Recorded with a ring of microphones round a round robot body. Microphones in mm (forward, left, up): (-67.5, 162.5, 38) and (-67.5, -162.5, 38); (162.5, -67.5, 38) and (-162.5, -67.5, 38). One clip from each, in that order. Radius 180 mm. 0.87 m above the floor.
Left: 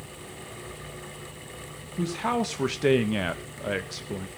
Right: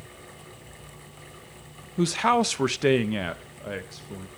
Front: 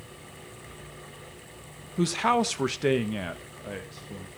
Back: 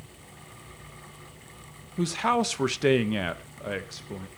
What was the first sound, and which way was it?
A man speaking, 75° right.